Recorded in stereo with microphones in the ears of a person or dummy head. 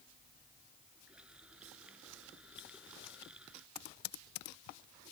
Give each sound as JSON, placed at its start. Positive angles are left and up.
{"t": 1.1, "sound": "a running tap", "side_deg": -5}
{"t": 3.8, "sound": "typing on a keyboard", "side_deg": 45}